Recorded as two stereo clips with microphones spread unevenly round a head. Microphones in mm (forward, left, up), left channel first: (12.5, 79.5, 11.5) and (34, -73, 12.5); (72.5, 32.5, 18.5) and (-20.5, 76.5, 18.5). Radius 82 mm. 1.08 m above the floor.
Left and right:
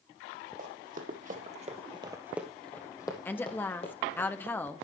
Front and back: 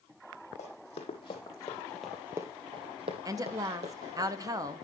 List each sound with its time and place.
0.6 s running footsteps: 55° right, 2.5 m; by 4.2 s 150° left, 3 m
3.2 s a woman speaking: 165° left, 0.7 m